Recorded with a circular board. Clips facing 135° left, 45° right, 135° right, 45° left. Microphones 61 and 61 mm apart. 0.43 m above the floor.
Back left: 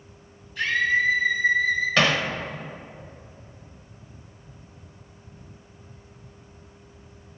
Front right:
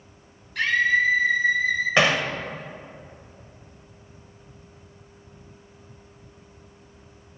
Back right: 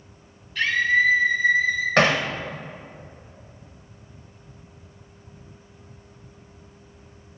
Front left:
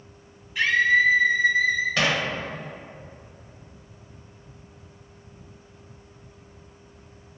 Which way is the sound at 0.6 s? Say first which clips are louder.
Front right 2 dB, front left 1 dB; 30° right.